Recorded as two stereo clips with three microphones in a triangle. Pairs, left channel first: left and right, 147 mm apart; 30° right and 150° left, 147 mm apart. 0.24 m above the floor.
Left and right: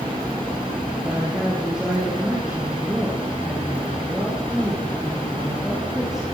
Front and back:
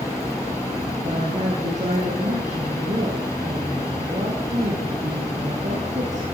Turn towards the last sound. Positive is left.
turn(degrees=-175)